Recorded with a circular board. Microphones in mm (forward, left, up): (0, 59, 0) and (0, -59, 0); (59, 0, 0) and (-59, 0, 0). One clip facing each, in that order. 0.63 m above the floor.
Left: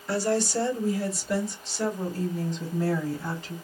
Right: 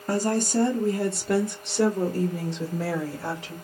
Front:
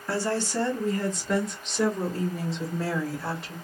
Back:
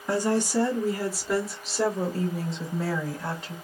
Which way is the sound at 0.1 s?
110° right.